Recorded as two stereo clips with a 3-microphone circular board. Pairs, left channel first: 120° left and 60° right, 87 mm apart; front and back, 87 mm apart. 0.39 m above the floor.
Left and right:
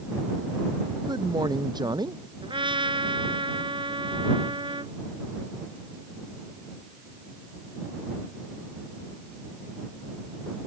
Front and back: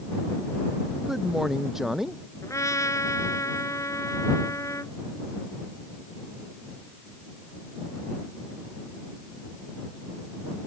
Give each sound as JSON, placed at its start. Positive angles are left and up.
{"t": 1.0, "sound": "a man speaking", "azimuth_deg": -95}
{"t": 2.4, "sound": "a trumpet", "azimuth_deg": -50}